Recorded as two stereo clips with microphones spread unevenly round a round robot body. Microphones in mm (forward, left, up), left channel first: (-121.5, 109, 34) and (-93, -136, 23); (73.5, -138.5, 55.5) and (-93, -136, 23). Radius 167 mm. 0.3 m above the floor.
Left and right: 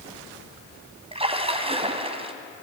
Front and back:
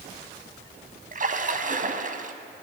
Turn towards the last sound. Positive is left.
turn(degrees=-150)